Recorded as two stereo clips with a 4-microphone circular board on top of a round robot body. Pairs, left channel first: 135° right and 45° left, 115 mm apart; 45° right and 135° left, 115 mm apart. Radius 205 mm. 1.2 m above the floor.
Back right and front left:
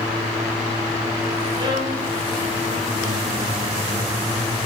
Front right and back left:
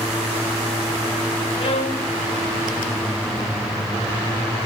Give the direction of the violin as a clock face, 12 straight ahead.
12 o'clock.